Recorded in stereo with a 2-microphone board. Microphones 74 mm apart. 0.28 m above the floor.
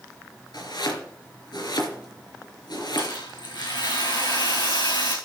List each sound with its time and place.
0.5 s chopping: 75° left (ahead or behind), 3.5 m
3.0 s a rattle: 80° left, 6 m